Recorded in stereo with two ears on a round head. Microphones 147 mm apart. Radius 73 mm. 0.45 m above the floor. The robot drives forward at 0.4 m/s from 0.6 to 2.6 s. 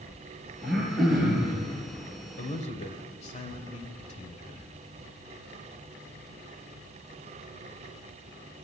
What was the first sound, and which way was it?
Throat clearing, centre (ahead or behind).